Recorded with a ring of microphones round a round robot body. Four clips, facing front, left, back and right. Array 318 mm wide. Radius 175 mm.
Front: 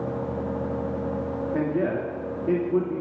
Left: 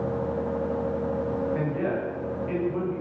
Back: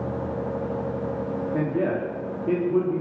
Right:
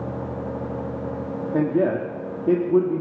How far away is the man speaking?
About 2.5 m.